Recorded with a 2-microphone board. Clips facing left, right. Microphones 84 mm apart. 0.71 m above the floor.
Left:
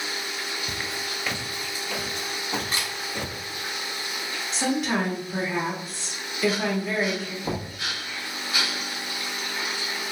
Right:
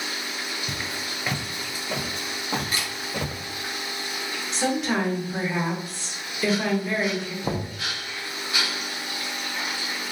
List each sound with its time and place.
0.7 s footsteps: 5° left (ahead or behind), 0.7 m; by 3.4 s 50° right (ahead or behind), 1.6 m
2.7 s a camera shutter: 25° left (ahead or behind), 1.8 m
4.5 s a woman speaking: centre (ahead or behind), 1.6 m
7.4 s knocking: 25° right (ahead or behind), 0.9 m